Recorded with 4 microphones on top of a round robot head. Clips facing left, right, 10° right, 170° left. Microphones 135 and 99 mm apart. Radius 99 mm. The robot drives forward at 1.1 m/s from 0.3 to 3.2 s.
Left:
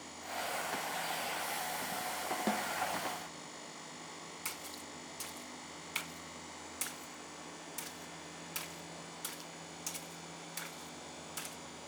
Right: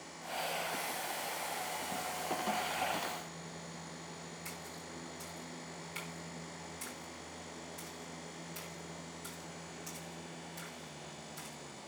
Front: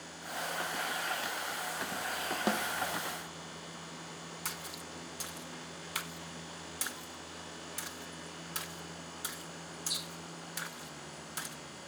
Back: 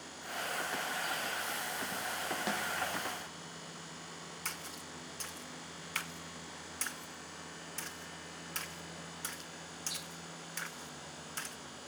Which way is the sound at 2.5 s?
35° left.